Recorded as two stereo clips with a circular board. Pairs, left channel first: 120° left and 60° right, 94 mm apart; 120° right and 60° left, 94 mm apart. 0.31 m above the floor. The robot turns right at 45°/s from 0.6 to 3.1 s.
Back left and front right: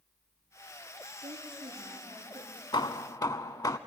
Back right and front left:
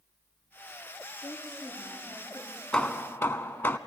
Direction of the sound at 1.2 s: 85° right.